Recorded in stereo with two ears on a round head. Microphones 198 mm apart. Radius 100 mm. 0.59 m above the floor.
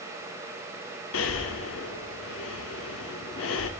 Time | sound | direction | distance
1.1 | breathing | 60° left (ahead or behind) | 0.6 m